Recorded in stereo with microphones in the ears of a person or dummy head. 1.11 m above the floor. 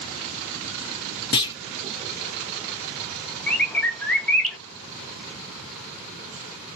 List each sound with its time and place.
1.3 s a clunk: 20° left (ahead or behind), 0.6 m
3.5 s a bird: 10° left (ahead or behind), 0.7 m